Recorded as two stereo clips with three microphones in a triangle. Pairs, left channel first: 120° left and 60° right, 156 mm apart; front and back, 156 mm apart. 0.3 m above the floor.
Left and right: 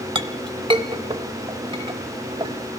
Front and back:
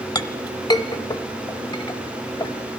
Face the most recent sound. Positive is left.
turn(degrees=-40)